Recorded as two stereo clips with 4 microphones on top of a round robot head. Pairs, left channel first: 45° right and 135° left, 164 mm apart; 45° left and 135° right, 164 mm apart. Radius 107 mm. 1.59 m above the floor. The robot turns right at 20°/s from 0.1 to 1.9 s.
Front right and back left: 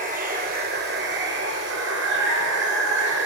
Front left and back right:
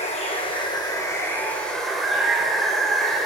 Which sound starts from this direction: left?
Running water, at 0.0 s.